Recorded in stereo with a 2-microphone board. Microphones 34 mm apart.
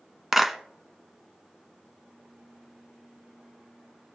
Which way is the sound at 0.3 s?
10° right (ahead or behind).